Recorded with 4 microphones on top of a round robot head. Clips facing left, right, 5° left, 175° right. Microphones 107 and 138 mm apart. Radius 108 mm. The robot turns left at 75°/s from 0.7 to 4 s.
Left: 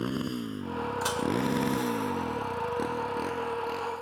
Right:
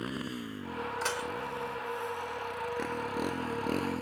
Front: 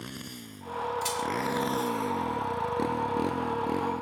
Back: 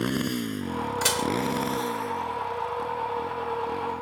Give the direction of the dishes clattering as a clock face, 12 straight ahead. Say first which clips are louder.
Left 6 dB, back 4 dB; 6 o'clock.